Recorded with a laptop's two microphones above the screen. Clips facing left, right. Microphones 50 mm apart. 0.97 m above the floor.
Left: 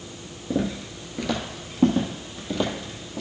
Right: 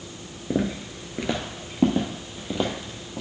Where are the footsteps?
20° right (ahead or behind), 0.9 m; by 3.2 s 10° right (ahead or behind), 2 m.